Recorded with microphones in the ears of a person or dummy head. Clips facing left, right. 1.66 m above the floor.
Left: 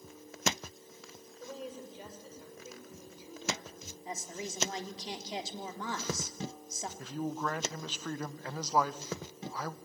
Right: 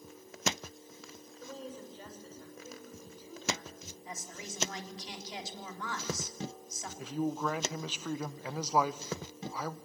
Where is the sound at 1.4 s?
10° left (ahead or behind), 6.5 m.